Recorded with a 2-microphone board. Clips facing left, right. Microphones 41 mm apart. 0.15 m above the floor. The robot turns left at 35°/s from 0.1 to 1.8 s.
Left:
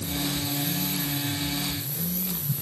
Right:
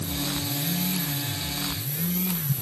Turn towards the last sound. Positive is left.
No sound to turn to.